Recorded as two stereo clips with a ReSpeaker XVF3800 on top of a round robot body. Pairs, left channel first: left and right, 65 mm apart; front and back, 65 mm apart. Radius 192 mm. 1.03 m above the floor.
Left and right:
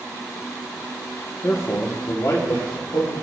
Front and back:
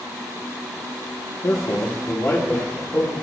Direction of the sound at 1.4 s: 35° left.